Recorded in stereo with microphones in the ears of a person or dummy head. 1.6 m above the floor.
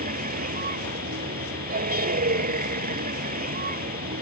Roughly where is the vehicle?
Right.